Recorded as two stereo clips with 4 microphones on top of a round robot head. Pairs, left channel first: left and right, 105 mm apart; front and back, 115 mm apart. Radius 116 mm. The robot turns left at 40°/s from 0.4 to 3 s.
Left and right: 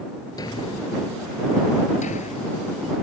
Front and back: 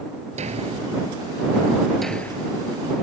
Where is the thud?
155° left; by 2.6 s 65° left.